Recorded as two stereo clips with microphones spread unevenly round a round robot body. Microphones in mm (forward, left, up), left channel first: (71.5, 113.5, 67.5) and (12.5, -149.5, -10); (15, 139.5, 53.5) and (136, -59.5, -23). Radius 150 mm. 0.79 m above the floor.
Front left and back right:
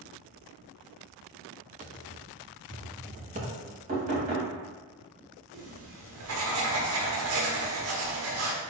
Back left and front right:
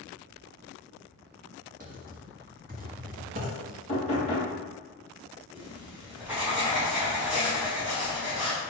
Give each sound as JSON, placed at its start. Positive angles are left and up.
{"t": 1.8, "sound": "typing on a keyboard", "azimuth_deg": -65, "distance_m": 1.2}
{"t": 3.9, "sound": "knocking", "azimuth_deg": -170, "distance_m": 3.0}
{"t": 5.5, "sound": "writing", "azimuth_deg": -145, "distance_m": 1.3}